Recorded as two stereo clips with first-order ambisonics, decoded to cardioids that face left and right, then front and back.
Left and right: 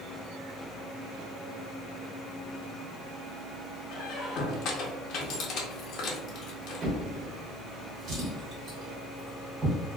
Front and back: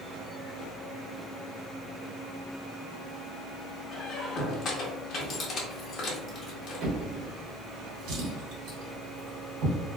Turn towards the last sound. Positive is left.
turn(degrees=-145)